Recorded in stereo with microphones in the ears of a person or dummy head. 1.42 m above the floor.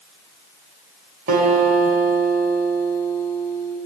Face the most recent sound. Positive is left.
turn(degrees=-45)  # may be behind; listen again after turning